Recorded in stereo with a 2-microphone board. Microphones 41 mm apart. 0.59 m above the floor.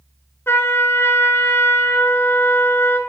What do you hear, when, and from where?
0.5 s a trumpet: 85° left, 2 m